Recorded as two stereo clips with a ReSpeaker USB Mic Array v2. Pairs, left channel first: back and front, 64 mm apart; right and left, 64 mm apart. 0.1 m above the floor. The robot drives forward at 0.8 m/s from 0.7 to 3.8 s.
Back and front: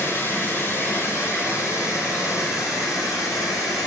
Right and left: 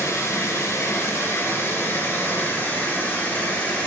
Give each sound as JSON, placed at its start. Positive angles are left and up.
{"t": 0.0, "sound": "running water", "azimuth_deg": -130, "distance_m": 2.5}